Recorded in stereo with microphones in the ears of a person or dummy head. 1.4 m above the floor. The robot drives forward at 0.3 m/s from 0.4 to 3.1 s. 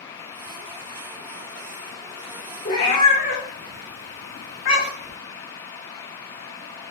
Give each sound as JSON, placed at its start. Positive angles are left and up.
{"t": 2.6, "sound": "a cat meowing", "side_deg": 25, "distance_m": 0.7}